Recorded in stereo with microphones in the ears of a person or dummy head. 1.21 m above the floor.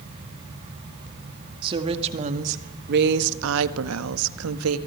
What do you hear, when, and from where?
1.6 s a woman speaking: 30° right (ahead or behind), 2 m; by 4.8 s 75° right (ahead or behind), 1.9 m